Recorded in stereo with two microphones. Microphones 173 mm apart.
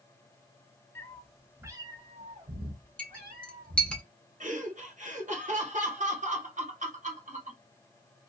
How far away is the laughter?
About 1.3 m.